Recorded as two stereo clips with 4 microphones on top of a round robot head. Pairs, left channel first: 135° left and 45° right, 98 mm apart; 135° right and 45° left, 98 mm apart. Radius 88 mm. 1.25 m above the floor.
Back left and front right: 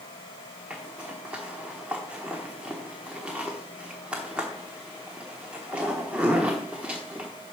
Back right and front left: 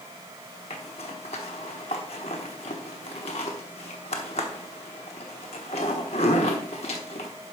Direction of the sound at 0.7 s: 125° right.